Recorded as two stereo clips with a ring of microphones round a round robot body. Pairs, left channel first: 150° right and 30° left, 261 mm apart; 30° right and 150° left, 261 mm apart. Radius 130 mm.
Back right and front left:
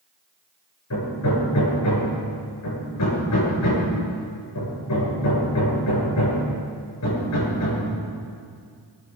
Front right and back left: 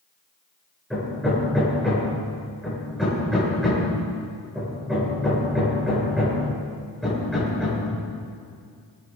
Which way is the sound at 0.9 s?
120° right.